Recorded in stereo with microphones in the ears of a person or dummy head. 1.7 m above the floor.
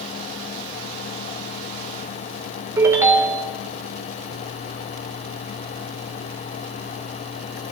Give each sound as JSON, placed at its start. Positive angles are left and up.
{"t": 2.8, "sound": "a ringtone", "side_deg": -15, "distance_m": 2.5}